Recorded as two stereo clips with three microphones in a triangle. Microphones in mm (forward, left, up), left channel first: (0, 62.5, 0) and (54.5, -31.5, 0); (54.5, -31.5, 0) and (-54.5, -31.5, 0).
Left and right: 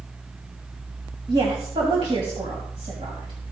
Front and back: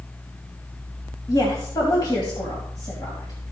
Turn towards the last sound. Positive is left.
turn(degrees=-40)